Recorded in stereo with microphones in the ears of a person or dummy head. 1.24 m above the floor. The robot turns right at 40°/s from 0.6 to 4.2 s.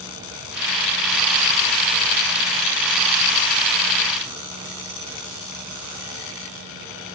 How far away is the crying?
I don't hear crying.